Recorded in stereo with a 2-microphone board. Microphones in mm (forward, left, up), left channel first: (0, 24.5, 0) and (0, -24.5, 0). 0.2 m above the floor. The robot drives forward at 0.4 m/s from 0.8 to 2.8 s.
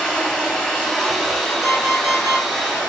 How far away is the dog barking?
I don't hear a dog barking.